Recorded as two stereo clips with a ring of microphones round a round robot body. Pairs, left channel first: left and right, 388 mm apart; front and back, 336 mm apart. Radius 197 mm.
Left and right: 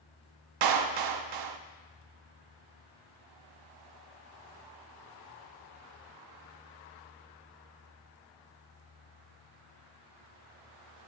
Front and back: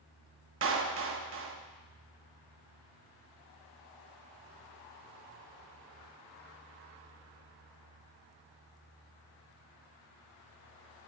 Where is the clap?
125° right, 0.9 m.